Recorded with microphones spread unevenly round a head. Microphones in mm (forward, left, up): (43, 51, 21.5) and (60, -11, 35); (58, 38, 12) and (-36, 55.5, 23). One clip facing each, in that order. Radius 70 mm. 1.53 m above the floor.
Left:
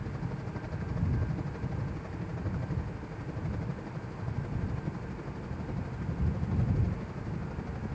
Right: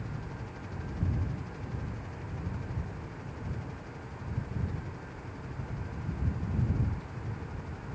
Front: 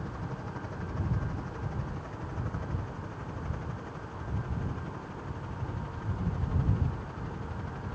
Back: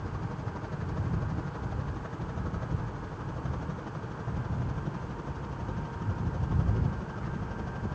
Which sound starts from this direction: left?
A helicopter, at 0.0 s.